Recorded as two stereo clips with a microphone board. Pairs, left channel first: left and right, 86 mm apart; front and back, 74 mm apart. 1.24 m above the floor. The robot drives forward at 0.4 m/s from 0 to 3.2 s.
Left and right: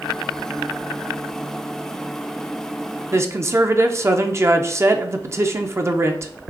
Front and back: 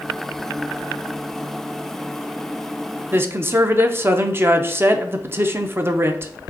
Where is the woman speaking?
130° right, 0.5 m; by 6.3 s 135° right, 0.6 m.